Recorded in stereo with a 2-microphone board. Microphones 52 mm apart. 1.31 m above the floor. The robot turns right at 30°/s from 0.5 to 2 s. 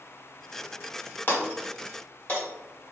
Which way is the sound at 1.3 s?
45° left (ahead or behind).